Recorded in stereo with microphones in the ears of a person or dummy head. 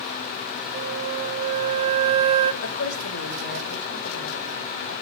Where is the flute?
35° right (ahead or behind), 1.1 m.